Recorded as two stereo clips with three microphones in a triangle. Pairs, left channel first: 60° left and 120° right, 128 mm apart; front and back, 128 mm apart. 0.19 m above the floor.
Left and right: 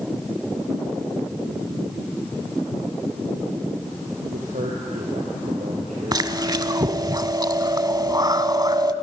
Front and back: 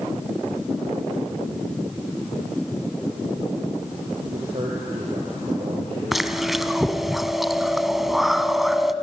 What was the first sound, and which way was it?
A man speaking, 135° right.